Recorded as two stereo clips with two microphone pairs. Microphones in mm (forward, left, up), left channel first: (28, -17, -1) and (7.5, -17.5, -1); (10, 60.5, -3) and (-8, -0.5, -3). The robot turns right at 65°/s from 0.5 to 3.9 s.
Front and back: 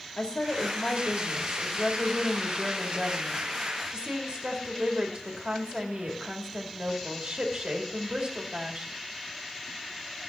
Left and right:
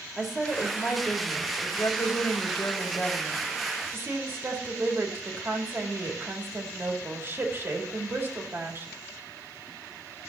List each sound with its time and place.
0.2 s a woman speaking: 20° right, 2.5 m; by 8.9 s 155° right, 2.5 m